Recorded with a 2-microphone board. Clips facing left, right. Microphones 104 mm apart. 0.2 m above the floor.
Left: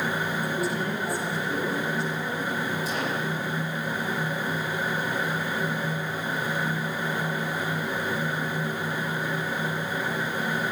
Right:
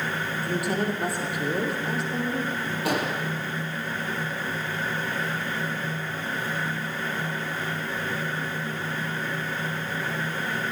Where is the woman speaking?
65° right (ahead or behind), 6.5 m; by 2.6 s 75° right (ahead or behind), 6.5 m.